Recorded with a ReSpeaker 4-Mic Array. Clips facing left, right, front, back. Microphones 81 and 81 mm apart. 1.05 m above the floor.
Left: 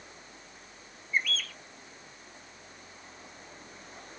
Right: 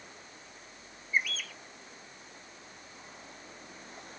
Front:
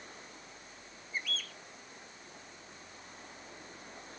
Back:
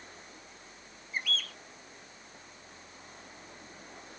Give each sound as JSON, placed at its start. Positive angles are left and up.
{"t": 1.1, "sound": "a bird", "azimuth_deg": -170}